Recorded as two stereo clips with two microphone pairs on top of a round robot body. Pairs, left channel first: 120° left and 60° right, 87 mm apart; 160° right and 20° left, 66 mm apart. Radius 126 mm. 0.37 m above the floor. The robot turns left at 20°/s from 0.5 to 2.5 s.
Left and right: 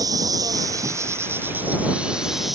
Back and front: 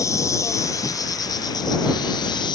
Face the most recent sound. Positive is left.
turn(degrees=-150)